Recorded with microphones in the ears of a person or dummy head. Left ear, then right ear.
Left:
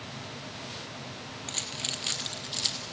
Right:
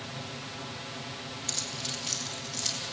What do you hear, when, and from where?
1.5 s keys jangling: 10° left (ahead or behind), 0.7 m; by 2.8 s 55° left (ahead or behind), 1.9 m